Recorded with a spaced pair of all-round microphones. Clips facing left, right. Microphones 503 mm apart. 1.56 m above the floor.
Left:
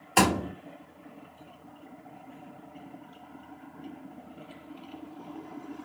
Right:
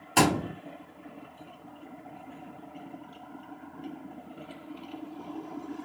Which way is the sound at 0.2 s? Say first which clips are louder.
Right 1 dB; 45° right (ahead or behind).